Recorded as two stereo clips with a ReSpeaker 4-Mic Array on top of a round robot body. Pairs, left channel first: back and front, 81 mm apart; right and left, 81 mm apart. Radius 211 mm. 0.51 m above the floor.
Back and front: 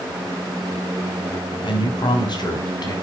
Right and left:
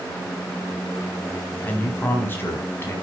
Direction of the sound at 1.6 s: 160° right.